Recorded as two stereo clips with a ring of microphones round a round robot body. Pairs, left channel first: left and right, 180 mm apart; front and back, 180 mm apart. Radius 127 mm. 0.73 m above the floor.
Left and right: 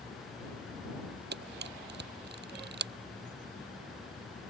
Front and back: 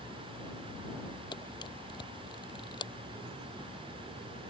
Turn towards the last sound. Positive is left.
turn(degrees=-75)